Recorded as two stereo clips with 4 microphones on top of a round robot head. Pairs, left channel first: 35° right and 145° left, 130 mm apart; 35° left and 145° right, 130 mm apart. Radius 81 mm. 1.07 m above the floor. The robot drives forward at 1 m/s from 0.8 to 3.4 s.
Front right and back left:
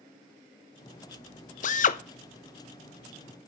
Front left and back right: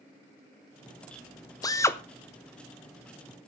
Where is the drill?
25° right, 1.2 m; by 2.0 s 35° right, 0.9 m.